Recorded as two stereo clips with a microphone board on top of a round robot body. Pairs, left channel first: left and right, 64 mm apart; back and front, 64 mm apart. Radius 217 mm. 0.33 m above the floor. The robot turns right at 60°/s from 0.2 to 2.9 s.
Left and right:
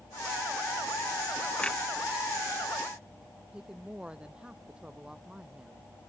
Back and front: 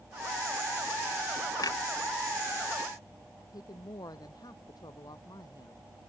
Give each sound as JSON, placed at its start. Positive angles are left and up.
{"t": 1.6, "sound": "a clunk", "azimuth_deg": 160}
{"t": 3.5, "sound": "a woman speaking", "azimuth_deg": -165}